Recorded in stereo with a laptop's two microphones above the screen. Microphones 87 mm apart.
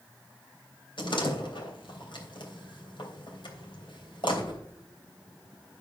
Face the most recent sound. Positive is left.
turn(degrees=70)  # may be behind; listen again after turning